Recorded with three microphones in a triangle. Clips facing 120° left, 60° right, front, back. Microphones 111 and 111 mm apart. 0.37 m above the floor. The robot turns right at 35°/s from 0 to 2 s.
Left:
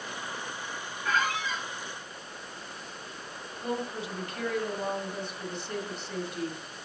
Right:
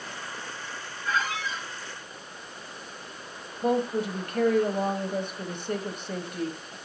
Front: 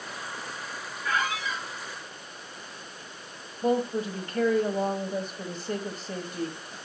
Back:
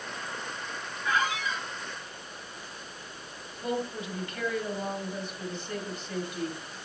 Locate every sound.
1.0 s a squeak: 105° left, 5 m; by 1.7 s 125° left, 5 m
3.6 s a woman speaking: 40° right, 1.6 m